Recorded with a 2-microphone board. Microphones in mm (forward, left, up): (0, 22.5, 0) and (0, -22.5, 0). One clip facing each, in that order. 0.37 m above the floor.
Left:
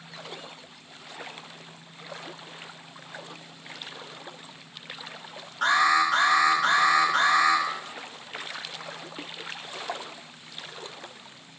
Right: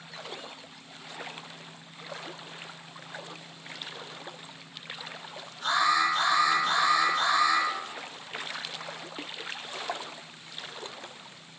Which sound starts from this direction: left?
An alarm, at 5.6 s.